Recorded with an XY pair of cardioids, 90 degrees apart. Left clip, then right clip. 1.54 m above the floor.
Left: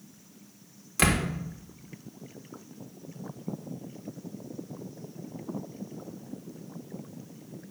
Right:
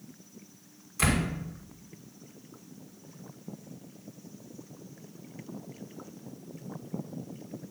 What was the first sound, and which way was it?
A door slam, 65° left.